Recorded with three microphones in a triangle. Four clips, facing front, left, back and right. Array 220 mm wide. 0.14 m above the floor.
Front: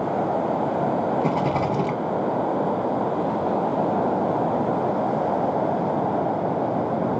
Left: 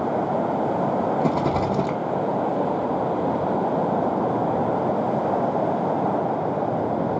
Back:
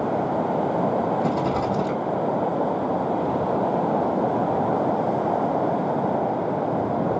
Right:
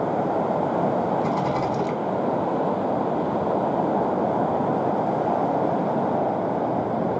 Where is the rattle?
70° left, 1.1 m.